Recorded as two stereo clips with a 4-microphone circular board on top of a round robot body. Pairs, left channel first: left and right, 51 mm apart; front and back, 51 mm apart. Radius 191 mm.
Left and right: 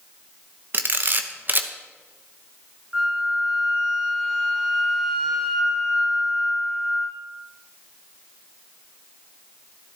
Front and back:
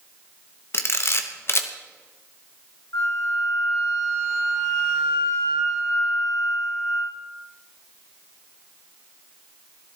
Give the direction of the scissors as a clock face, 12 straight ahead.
No scissors in this recording.